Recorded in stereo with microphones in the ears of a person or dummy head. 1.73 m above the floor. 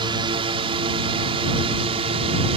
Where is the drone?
30° right (ahead or behind); by 2.6 s 35° right (ahead or behind).